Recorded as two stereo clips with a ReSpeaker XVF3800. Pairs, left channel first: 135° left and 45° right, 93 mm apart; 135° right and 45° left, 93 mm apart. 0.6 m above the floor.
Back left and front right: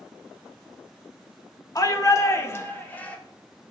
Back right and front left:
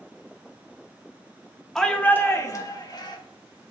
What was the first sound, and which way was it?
A shout, 140° left.